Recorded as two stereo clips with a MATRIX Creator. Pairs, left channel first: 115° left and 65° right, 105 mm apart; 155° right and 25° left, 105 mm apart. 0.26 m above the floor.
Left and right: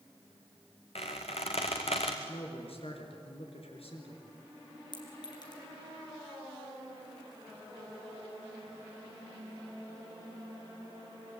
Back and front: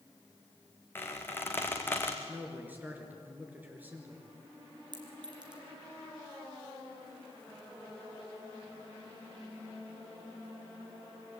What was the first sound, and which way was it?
A squeak, 130° left.